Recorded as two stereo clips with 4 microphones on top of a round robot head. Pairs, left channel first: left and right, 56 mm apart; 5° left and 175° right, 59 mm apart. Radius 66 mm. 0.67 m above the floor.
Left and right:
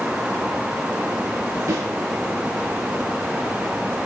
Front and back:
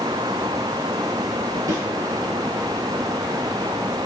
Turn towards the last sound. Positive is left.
turn(degrees=-135)